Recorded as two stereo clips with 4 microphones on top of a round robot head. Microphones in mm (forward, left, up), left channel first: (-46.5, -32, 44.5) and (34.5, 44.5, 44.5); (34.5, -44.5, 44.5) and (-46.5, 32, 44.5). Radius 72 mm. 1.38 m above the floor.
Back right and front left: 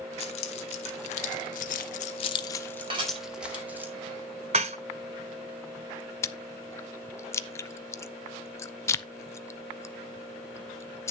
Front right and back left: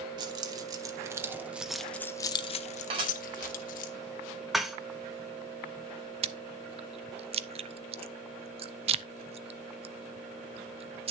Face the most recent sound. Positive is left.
turn(degrees=160)